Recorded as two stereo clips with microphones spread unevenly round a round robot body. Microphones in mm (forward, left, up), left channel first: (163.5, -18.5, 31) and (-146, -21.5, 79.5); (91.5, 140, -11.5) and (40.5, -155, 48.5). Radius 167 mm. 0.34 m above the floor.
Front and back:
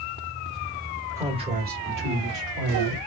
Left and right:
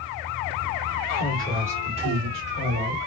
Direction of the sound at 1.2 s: 90° left.